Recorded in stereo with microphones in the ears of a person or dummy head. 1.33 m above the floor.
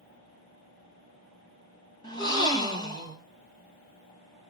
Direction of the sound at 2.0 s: 30° left (ahead or behind).